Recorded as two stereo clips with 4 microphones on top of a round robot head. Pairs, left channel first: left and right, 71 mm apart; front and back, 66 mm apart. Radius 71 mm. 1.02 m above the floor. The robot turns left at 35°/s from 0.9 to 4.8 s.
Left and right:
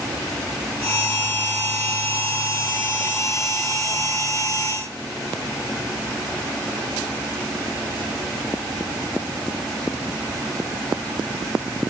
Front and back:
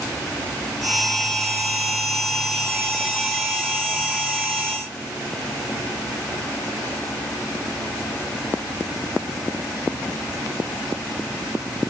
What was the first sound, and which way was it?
Only background noise.